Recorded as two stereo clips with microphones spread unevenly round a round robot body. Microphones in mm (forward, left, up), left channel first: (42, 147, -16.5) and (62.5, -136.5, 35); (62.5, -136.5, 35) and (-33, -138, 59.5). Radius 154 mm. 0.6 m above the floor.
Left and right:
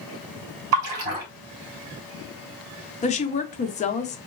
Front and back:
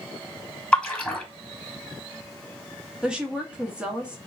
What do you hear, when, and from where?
0.7 s a splash: 80° right, 1.9 m
3.0 s a woman speaking: 85° left, 0.6 m